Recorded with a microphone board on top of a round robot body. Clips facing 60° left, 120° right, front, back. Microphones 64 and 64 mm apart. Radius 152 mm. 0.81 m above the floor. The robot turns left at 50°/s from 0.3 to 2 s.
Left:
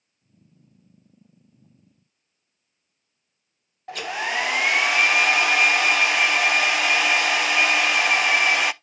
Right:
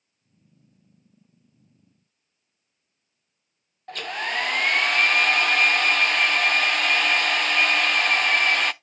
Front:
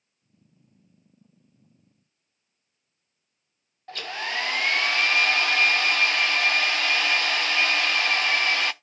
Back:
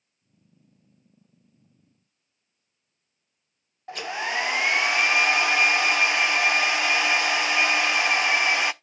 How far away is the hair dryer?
About 0.6 m.